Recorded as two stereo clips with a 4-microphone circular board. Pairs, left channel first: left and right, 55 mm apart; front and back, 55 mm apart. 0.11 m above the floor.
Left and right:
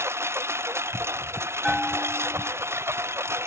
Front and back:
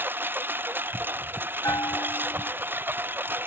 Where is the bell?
5° right.